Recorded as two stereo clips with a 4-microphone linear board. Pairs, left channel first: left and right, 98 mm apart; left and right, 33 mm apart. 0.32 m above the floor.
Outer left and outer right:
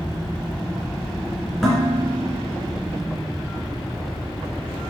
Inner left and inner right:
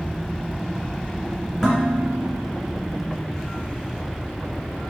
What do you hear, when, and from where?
1.6 s dishes clattering: centre (ahead or behind), 2.5 m